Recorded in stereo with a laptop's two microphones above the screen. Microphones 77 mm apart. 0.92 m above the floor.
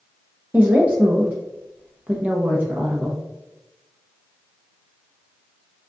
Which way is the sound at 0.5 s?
20° right (ahead or behind).